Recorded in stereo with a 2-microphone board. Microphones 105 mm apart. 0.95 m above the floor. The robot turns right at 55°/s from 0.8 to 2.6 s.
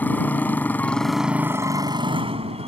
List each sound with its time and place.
0.0 s a motorcycle: 165° left; by 2.7 s 100° right